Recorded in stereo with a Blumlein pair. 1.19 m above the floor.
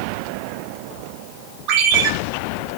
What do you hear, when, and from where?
1.7 s a ringtone: 30° right, 4 m